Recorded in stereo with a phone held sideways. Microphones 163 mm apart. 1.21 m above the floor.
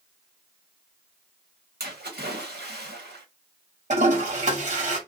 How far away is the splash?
About 1.1 m.